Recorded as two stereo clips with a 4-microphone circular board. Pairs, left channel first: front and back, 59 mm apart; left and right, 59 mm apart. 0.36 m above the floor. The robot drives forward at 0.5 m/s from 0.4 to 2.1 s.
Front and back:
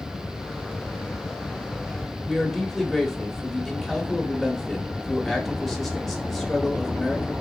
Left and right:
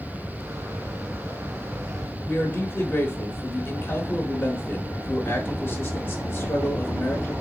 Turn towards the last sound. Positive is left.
turn(degrees=90)